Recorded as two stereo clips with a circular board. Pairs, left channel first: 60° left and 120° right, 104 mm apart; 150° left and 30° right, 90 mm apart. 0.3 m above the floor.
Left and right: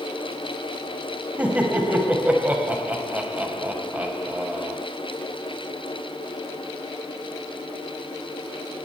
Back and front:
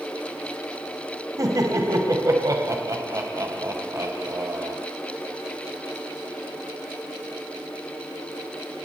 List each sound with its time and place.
1.4 s laughter: 55° right, 1.6 m